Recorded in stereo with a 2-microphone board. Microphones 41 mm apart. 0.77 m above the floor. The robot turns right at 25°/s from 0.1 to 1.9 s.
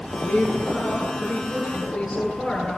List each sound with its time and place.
0.2 s a woman speaking: 140° left, 9 m; by 2.8 s 175° right, 9 m